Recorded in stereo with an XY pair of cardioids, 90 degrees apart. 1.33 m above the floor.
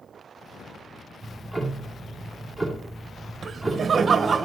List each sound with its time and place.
1.2 s ticking: 5° left, 2.5 m
3.4 s laughter: 45° right, 0.9 m